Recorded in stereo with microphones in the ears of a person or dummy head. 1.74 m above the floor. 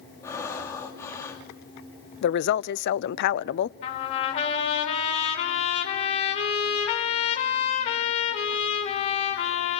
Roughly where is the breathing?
Centre.